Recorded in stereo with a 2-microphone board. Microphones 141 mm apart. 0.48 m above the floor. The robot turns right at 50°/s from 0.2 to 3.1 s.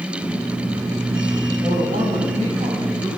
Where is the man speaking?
105° right, 4 m; by 3.1 s 30° right, 4 m.